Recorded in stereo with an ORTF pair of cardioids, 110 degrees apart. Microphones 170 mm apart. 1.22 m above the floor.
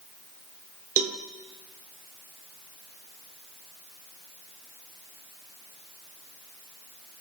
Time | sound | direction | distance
1.0 | a cowbell | 45° right | 0.5 m